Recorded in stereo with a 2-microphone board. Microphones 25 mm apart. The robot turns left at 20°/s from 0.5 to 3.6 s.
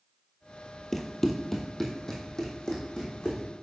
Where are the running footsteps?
20° left (ahead or behind), 0.9 m; by 3.4 s 40° left (ahead or behind), 3 m.